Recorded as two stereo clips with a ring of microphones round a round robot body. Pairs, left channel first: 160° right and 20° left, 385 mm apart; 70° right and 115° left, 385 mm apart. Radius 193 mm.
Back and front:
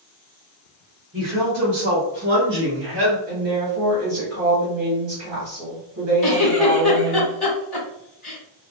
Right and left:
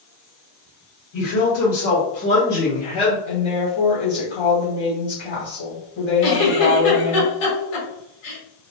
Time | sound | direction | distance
1.1 | a woman speaking | 45° right | 1.7 m
3.3 | a woman speaking | 25° right | 1.4 m
6.2 | a giggle | 85° right | 1.7 m